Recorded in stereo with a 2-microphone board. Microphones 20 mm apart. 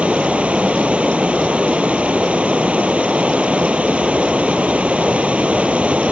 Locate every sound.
0.0 s running water: 85° right